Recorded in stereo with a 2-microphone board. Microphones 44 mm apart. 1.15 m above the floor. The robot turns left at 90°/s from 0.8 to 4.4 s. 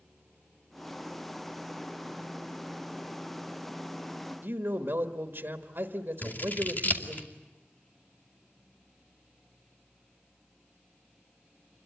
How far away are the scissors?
About 2.5 m.